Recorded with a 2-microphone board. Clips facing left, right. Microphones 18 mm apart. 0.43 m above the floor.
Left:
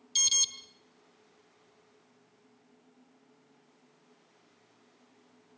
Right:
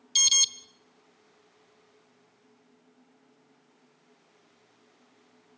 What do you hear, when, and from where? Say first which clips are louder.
0.1 s an alarm: right 5 dB; 25° right (ahead or behind), 0.9 m